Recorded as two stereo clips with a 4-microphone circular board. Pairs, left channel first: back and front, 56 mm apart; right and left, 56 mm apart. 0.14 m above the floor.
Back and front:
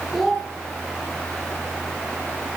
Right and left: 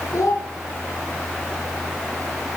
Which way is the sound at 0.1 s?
80° right.